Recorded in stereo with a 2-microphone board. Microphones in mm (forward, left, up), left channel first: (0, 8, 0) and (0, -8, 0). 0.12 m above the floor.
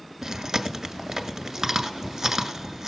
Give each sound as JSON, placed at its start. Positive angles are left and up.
{"t": 0.2, "sound": "chewing", "side_deg": -30, "distance_m": 1.6}